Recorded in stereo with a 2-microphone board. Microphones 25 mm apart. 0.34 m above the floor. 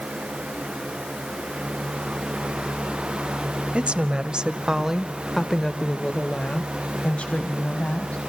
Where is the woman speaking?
50° right (ahead or behind), 1.5 m; by 8.2 s 60° left (ahead or behind), 2.5 m.